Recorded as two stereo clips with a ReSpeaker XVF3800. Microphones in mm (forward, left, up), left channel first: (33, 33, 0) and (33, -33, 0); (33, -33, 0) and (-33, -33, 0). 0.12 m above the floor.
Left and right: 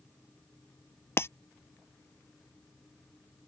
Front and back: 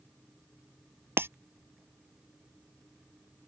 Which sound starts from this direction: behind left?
Breaking glass, at 1.2 s.